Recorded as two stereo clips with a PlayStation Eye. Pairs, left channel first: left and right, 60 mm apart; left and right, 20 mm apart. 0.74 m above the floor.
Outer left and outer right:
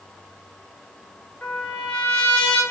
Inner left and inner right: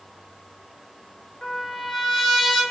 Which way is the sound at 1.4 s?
20° left (ahead or behind).